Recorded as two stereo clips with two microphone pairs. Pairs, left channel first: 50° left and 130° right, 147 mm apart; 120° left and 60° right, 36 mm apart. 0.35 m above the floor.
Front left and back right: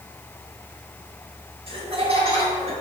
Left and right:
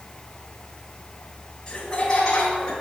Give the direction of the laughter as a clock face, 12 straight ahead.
6 o'clock.